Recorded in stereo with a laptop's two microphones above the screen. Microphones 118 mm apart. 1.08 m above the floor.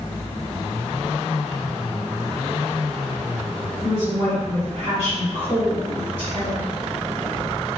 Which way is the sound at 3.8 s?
65° right (ahead or behind).